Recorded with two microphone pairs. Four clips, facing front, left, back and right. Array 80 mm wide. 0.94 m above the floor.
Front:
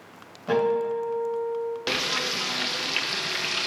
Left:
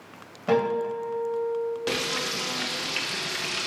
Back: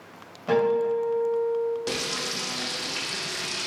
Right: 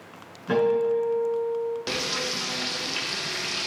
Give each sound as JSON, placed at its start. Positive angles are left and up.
{"t": 0.5, "sound": "a guitar", "azimuth_deg": 100, "distance_m": 3.0}
{"t": 1.9, "sound": "frying", "azimuth_deg": 0, "distance_m": 0.6}